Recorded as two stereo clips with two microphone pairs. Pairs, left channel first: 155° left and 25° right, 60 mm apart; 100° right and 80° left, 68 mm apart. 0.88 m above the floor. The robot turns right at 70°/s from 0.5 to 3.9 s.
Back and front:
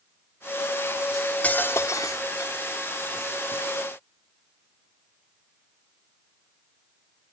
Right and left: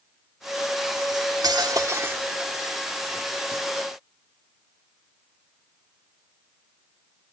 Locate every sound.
1.1 s cutlery clinking: 65° left, 1.4 m; by 2.5 s 160° left, 1.4 m